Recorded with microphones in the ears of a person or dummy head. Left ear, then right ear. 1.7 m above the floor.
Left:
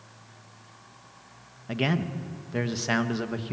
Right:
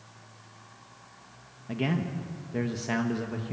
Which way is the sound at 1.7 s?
25° left (ahead or behind).